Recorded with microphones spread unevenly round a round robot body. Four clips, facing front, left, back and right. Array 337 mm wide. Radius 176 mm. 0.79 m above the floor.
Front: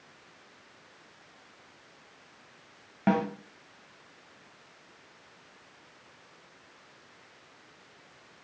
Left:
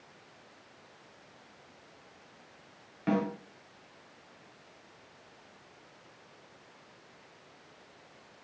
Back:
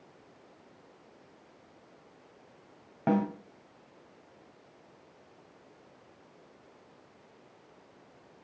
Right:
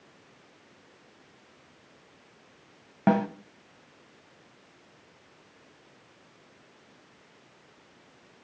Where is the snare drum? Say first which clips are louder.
Right 6 dB, front 1 dB; 75° right, 1.7 m.